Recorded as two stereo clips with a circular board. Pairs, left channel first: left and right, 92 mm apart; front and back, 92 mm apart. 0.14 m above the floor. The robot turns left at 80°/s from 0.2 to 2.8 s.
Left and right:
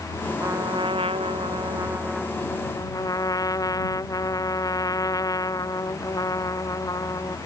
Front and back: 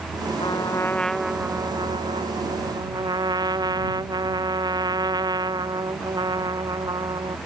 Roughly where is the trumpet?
Ahead right.